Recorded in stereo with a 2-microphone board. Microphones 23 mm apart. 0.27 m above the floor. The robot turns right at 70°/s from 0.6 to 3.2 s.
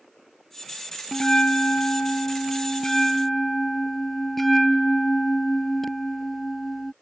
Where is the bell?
30° left; by 6.9 s 175° left.